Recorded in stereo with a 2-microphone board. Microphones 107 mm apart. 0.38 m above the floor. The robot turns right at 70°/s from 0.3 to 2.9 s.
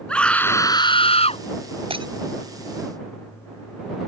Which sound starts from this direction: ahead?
A scream, at 0.1 s.